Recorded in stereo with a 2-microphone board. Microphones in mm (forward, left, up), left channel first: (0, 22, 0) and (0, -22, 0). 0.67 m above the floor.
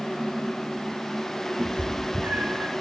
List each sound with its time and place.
1.6 s a cat meowing: 30° right (ahead or behind), 2 m; by 2.7 s 55° right (ahead or behind), 1.6 m